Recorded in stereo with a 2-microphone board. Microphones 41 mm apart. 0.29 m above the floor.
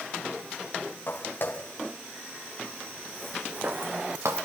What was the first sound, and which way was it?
Footsteps, 45° left (ahead or behind).